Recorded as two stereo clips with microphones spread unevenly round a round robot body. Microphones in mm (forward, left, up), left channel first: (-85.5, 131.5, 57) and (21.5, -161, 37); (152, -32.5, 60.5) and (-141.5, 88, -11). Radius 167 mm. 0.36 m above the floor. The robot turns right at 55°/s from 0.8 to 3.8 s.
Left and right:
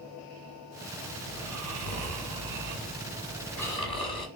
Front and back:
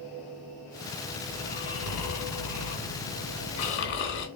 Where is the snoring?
105° right, 1.0 m; by 4.3 s 35° left, 1.0 m.